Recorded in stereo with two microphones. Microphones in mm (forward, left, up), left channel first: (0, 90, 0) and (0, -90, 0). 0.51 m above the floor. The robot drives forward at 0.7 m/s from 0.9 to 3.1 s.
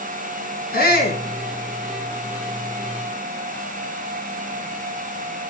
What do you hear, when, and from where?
0.7 s a shout: 60° left (ahead or behind), 5.5 m